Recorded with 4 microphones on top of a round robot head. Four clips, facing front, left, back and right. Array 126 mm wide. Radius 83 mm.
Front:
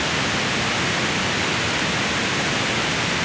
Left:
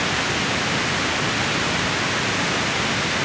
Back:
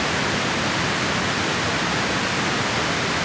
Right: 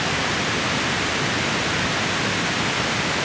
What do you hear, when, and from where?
Only background noise.